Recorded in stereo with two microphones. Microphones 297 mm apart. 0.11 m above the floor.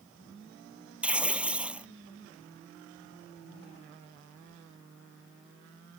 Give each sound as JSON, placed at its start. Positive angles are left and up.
{"t": 1.0, "sound": "tearing paper", "side_deg": -5}